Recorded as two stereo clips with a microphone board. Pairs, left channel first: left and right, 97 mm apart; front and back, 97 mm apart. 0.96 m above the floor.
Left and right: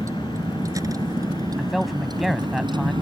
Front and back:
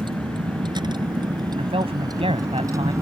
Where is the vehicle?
145° right; by 3.0 s 125° right.